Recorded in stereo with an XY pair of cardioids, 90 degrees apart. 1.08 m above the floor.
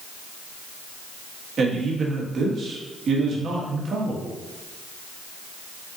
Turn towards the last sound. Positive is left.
turn(degrees=-55)